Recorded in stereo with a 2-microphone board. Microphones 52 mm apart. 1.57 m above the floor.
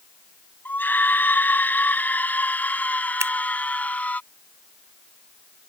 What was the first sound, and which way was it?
A scream, 40° left (ahead or behind).